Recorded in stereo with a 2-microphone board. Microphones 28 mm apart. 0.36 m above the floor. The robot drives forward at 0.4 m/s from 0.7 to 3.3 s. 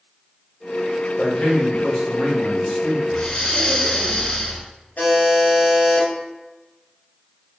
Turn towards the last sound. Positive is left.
turn(degrees=70)  # may be behind; listen again after turning